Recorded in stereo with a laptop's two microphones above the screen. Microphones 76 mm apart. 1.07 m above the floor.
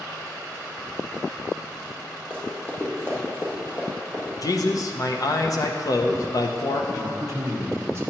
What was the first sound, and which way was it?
Running footsteps, 15° left (ahead or behind).